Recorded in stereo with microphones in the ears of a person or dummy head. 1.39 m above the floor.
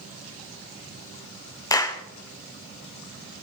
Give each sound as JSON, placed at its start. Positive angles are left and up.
{"t": 1.7, "sound": "a clap", "side_deg": 15, "distance_m": 0.5}